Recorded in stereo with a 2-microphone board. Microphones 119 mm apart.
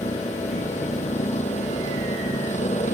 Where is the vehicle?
80° left.